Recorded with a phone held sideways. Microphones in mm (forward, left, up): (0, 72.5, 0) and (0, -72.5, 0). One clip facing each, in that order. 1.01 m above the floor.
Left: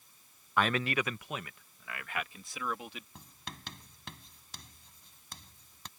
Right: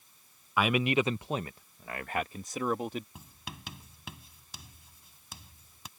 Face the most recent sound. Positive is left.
turn(degrees=-5)  # may be behind; listen again after turning